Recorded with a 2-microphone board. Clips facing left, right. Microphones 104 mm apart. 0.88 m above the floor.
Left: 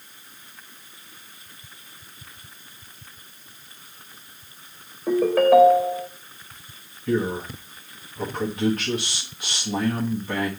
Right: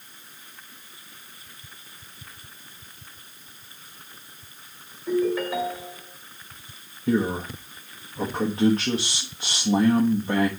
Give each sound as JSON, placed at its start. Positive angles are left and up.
{"t": 5.1, "sound": "a ringtone", "side_deg": 60, "distance_m": 1.2}
{"t": 7.1, "sound": "a man speaking", "side_deg": -30, "distance_m": 1.4}